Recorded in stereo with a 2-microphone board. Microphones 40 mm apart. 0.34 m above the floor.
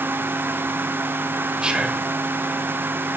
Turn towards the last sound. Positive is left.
turn(degrees=-25)  # may be behind; listen again after turning